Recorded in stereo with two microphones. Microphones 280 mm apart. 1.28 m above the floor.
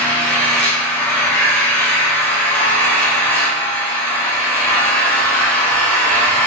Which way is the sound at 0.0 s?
5° left (ahead or behind).